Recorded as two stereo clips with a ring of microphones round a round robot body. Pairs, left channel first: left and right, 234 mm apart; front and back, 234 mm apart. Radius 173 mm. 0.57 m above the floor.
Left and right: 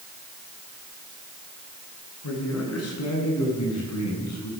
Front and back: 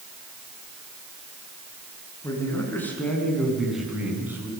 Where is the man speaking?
80° left, 7 m; by 4.5 s 100° left, 6 m.